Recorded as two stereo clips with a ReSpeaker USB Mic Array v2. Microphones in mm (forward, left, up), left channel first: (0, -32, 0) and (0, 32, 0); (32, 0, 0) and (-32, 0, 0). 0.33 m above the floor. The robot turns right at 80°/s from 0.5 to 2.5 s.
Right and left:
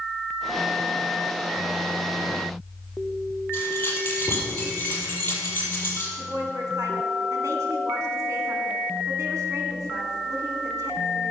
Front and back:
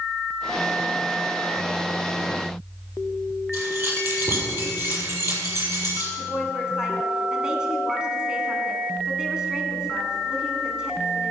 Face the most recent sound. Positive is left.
turn(degrees=105)